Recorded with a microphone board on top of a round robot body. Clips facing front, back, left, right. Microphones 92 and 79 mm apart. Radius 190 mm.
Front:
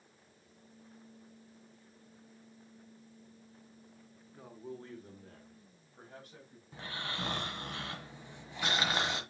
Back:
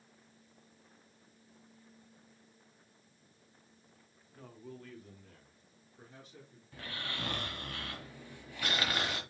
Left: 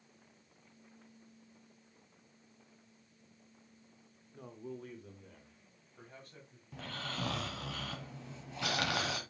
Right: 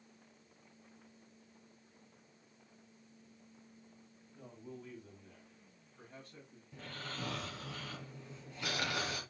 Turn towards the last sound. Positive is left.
turn(degrees=70)